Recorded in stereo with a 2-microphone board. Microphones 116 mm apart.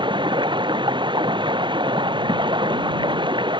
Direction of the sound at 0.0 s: 45° right (ahead or behind).